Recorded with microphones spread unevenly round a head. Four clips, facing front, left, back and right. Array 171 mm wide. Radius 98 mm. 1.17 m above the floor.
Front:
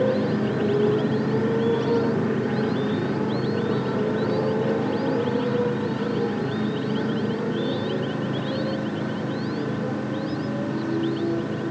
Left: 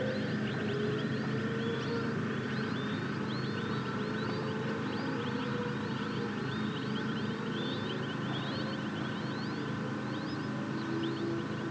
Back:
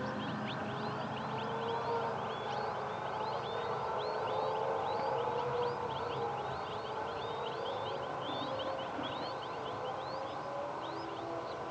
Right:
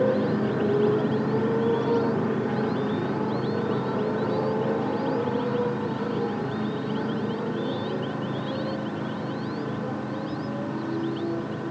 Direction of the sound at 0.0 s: 50° right.